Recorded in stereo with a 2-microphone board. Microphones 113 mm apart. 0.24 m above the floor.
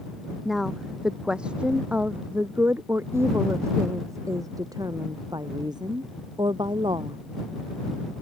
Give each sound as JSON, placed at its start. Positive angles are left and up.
{"t": 0.5, "sound": "a woman speaking", "side_deg": 0}